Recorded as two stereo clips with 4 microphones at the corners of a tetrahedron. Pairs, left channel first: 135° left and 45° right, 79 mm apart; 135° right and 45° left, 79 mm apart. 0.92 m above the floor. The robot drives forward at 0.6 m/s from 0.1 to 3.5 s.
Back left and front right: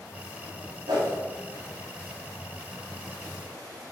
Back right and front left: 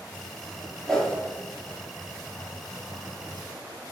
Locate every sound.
0.9 s a whoosh: 50° right, 2 m; by 1.2 s 55° right, 2 m